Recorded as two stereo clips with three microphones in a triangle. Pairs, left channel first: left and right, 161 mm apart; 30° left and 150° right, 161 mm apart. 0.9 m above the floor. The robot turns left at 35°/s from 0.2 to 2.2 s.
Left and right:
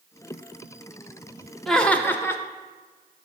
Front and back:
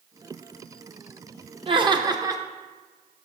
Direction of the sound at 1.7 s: 175° left.